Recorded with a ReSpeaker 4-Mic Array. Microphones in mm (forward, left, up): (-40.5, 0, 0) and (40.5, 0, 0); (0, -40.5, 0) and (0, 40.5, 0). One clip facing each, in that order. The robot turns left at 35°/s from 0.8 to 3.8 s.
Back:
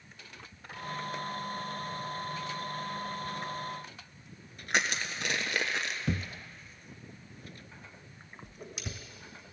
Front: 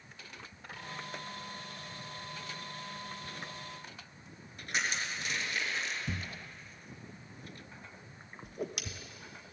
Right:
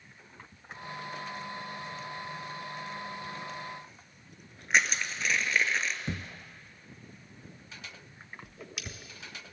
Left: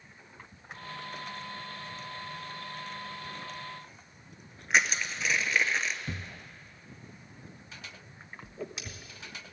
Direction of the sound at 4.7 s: Straight behind.